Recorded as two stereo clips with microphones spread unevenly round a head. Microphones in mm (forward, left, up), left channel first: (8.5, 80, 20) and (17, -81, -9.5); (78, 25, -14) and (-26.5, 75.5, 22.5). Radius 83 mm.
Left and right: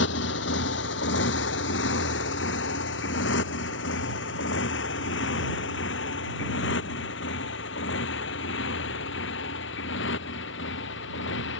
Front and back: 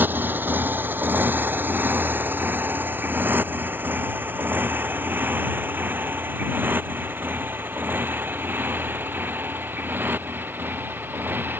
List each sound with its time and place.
0.0 s a motorcycle: 80° left